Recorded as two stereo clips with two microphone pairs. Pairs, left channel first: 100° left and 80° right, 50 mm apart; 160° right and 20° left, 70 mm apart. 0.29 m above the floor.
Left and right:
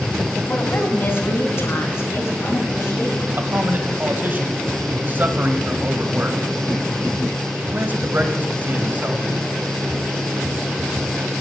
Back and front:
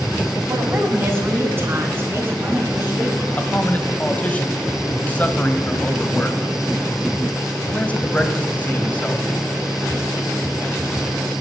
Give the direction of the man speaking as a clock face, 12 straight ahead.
3 o'clock.